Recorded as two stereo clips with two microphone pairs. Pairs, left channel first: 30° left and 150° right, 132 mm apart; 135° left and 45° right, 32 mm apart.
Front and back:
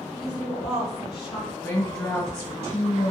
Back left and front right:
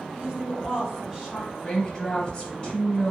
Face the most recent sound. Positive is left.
turn(degrees=90)